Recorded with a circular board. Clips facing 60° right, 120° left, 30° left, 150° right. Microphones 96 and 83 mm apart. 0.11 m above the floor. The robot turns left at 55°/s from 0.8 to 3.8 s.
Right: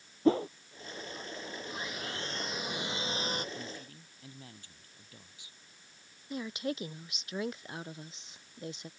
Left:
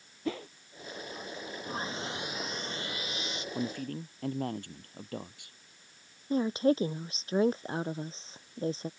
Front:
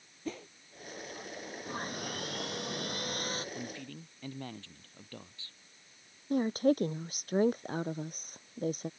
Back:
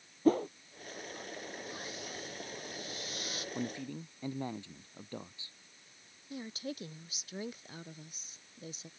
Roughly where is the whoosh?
Right.